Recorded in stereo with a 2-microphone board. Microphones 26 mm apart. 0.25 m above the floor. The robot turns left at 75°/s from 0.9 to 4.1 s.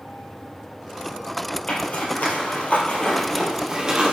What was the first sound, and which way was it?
A zipper, 45° left (ahead or behind).